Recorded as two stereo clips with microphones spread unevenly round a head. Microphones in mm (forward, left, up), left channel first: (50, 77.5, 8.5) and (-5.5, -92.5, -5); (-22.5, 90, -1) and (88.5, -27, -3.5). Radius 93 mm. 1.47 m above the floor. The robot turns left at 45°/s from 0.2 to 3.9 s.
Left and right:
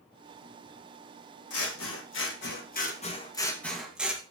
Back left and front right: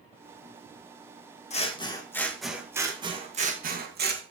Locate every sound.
1.5 s scissors: 85° left, 1.7 m; by 4.2 s 25° right, 1.7 m